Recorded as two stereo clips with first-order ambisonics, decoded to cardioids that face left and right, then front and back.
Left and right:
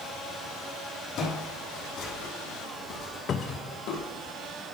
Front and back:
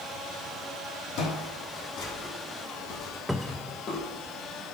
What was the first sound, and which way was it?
Footsteps, 40° left.